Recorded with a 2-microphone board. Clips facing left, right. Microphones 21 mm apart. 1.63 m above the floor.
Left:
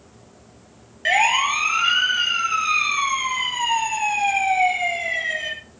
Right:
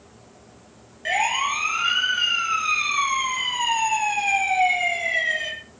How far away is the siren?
About 3 m.